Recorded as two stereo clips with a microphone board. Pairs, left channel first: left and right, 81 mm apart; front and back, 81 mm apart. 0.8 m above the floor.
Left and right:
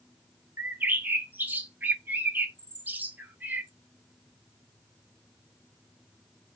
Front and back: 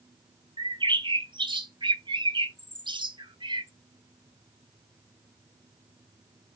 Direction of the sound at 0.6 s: 160° right.